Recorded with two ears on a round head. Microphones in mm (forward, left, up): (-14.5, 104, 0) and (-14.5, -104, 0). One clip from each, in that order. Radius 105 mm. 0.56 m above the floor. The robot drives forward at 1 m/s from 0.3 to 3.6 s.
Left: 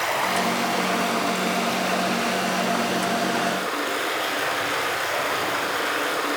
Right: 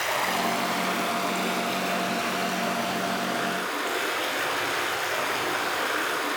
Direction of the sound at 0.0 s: 15° right (ahead or behind).